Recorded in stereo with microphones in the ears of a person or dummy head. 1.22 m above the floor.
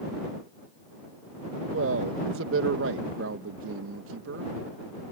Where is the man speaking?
70° right (ahead or behind).